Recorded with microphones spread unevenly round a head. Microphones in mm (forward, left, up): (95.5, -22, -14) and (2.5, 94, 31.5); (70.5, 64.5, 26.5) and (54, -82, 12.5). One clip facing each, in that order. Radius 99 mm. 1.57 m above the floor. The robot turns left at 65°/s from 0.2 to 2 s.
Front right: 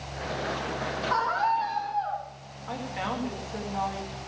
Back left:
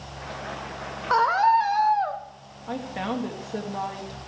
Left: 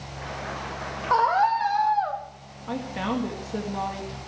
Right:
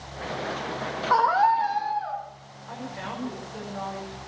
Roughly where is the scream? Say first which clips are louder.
Back left 8 dB, even; behind.